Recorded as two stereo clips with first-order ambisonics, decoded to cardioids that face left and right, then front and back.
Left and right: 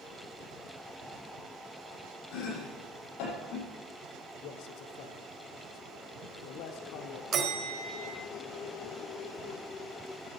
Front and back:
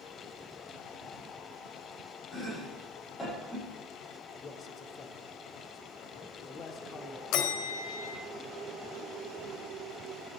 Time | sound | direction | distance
2.3 | chopping | 80° left | 8 m
4.4 | a man speaking | 65° left | 1.6 m
7.3 | a bell | 30° right | 2 m